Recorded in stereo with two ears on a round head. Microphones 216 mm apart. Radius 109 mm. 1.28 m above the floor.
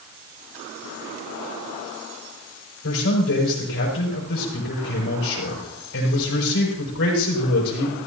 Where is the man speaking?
55° left (ahead or behind), 5.5 m.